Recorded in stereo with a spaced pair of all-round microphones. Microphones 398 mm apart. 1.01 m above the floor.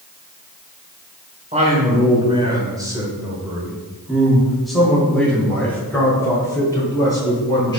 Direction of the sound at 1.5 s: 20° right (ahead or behind).